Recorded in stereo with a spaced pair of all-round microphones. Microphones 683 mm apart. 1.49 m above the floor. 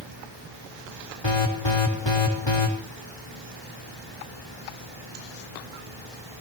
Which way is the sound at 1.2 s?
40° left (ahead or behind).